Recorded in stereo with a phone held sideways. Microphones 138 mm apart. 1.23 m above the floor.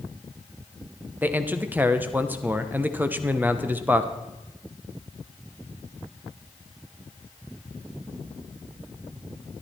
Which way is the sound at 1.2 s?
15° right (ahead or behind).